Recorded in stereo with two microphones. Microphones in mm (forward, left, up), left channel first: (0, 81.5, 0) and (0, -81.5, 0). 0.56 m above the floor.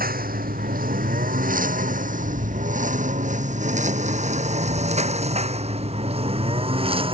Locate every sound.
0.0 s a lawn mower: 65° right (ahead or behind); by 7.2 s 35° right (ahead or behind)